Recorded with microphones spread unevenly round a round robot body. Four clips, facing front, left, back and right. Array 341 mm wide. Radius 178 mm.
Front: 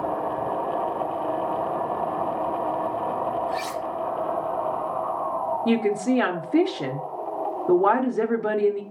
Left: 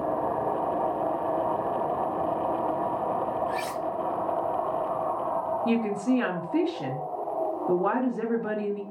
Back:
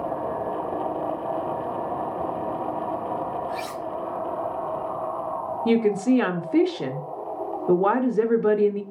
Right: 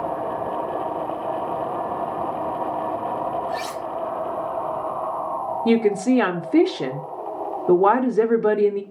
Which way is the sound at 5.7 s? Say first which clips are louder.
Right 9 dB, back 3 dB; 75° right.